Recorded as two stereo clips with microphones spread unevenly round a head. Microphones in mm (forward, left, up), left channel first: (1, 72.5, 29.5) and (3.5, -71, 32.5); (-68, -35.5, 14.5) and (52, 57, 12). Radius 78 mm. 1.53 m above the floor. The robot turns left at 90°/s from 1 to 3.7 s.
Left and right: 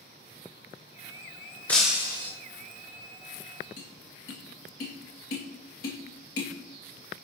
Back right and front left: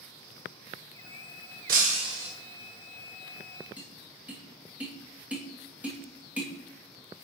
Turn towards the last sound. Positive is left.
turn(degrees=120)